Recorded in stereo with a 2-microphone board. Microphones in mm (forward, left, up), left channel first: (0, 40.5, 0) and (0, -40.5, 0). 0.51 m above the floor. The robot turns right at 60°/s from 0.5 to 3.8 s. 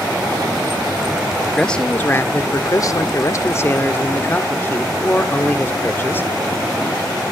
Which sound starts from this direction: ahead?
A man speaking, at 1.6 s.